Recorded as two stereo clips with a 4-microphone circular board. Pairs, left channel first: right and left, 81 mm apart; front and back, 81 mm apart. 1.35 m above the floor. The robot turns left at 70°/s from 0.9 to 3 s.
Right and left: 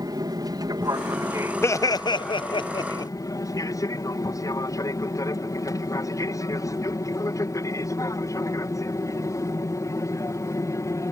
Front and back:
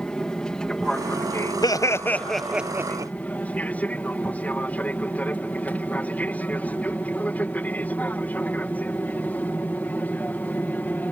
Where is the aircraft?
80° left; by 11.1 s 60° right.